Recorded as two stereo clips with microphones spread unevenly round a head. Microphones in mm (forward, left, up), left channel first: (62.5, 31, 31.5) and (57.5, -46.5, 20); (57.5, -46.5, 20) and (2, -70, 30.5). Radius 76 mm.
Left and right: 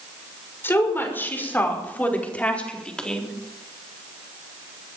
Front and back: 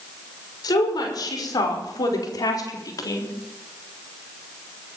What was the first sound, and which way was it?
A woman speaking, 25° left.